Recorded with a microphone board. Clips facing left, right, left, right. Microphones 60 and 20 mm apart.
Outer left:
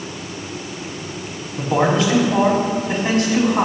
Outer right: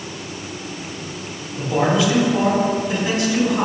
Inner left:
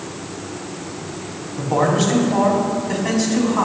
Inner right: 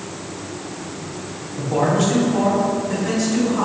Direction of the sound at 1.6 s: 50° left (ahead or behind).